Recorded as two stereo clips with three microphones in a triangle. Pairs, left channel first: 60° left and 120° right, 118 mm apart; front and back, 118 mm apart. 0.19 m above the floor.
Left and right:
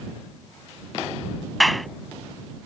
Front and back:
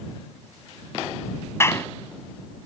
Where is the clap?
30° right.